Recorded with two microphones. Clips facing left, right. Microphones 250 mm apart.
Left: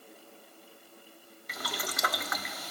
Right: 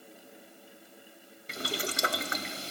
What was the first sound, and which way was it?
Boiling, 30° right (ahead or behind).